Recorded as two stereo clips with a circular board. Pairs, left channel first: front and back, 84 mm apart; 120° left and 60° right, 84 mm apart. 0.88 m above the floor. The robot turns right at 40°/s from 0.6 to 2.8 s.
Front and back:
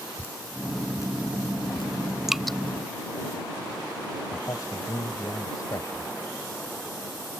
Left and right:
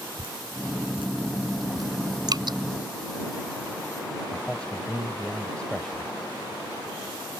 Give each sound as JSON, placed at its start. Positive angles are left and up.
{"t": 0.2, "sound": "dripping", "azimuth_deg": -65}
{"t": 2.3, "sound": "dripping", "azimuth_deg": -95}
{"t": 4.3, "sound": "a man speaking", "azimuth_deg": 45}